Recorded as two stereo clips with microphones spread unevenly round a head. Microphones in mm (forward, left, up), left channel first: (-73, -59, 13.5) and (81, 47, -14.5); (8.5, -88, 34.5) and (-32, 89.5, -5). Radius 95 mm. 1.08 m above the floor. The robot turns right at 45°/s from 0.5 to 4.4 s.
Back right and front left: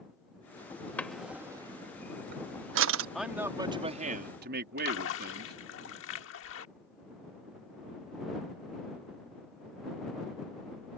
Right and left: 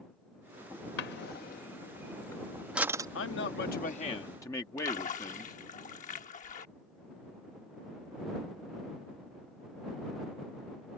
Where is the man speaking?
55° right; by 5.5 s straight ahead.